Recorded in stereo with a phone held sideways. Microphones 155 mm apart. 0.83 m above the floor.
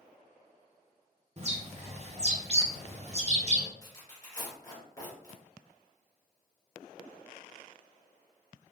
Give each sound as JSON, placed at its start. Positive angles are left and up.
{"t": 1.4, "sound": "a bird", "side_deg": -45, "distance_m": 0.7}
{"t": 3.8, "sound": "tearing paper", "side_deg": 25, "distance_m": 2.0}